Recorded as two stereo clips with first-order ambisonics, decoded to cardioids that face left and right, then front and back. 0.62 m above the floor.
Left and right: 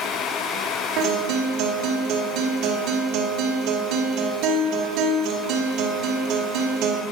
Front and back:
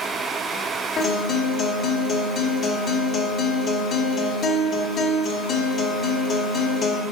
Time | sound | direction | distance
1.0 | a guitar | 60° right | 2.5 m